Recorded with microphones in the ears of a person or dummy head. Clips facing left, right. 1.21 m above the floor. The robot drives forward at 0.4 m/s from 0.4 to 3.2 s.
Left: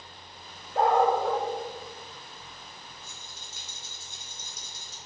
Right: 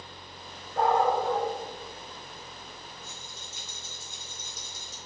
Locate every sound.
0.8 s a dog barking: 45° left (ahead or behind), 1.5 m; by 1.5 s 50° left (ahead or behind), 1.4 m
3.0 s a rattle: 80° left, 2.5 m